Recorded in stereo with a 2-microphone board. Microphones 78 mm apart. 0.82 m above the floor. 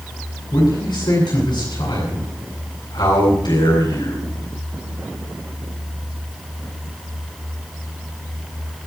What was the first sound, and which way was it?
A man speaking, 65° left (ahead or behind).